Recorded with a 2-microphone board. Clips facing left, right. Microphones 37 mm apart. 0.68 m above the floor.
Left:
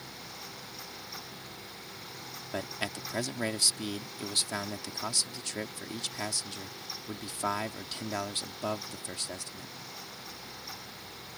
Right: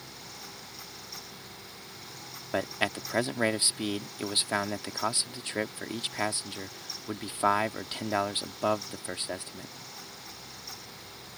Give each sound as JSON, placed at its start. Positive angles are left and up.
{"t": 2.5, "sound": "a man speaking", "side_deg": -25}